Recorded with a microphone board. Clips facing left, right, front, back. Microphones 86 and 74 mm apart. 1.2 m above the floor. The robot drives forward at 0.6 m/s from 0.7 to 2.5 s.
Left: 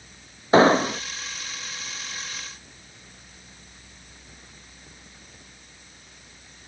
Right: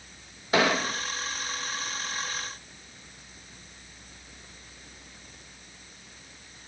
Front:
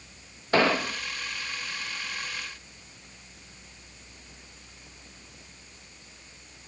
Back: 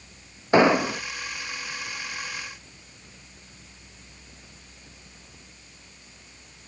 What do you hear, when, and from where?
0.5 s an explosion: 120° left; by 1.0 s 145° left